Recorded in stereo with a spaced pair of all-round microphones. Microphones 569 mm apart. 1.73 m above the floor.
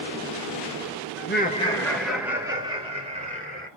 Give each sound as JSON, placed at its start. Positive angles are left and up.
{"t": 1.2, "sound": "laughter", "side_deg": 25, "distance_m": 1.7}